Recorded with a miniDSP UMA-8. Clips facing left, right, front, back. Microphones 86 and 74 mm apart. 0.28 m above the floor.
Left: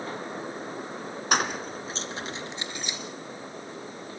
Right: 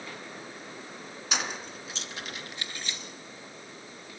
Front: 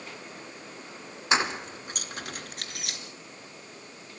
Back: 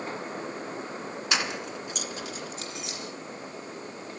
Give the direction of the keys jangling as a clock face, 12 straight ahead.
10 o'clock.